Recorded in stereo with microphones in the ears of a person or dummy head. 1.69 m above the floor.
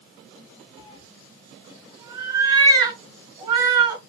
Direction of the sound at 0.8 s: 25° right (ahead or behind).